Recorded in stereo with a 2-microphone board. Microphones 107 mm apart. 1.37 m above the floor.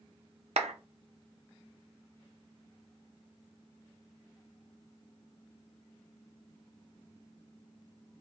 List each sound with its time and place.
0.6 s a clap: 80° right, 0.7 m